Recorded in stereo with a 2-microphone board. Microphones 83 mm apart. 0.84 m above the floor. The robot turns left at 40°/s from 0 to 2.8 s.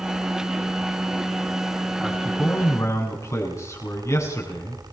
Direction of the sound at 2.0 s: Straight behind.